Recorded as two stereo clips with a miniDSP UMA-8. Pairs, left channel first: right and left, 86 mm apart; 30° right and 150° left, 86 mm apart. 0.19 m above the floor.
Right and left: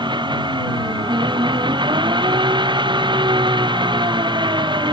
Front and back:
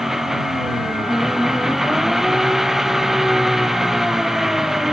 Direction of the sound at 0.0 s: 65° left.